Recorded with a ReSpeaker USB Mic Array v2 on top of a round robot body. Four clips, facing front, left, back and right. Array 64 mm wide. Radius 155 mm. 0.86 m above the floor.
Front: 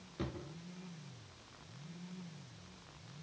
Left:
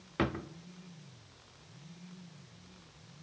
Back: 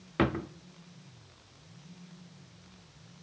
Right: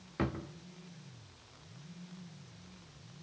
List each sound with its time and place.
0.2 s a drawer: 165° left, 0.6 m